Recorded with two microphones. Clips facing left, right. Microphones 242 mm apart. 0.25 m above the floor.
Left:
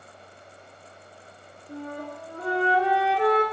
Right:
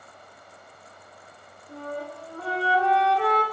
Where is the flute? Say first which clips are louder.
Even; 20° left (ahead or behind), 1.3 m.